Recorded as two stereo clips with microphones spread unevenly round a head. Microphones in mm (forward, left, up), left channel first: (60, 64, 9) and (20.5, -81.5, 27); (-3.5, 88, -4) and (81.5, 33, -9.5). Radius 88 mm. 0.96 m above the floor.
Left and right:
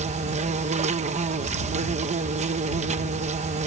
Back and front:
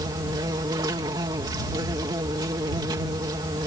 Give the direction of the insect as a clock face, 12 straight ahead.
2 o'clock.